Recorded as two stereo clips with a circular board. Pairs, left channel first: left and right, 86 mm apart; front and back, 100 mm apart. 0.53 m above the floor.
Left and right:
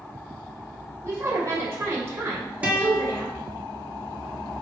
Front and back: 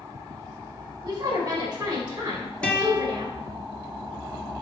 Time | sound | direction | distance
1.0 | a woman speaking | 145° right | 2.5 m
2.6 | a guitar | 55° right | 1.2 m